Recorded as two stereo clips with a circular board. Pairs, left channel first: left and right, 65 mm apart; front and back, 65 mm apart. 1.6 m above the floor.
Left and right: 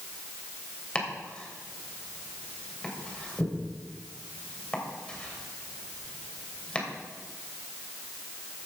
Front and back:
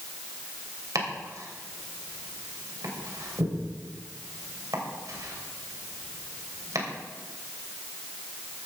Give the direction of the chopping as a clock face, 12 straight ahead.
7 o'clock.